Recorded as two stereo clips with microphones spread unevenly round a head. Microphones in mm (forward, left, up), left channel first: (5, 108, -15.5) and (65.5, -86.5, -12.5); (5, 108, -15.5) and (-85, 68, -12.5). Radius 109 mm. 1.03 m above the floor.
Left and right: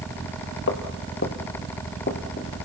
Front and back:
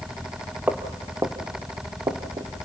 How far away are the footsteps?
About 2 m.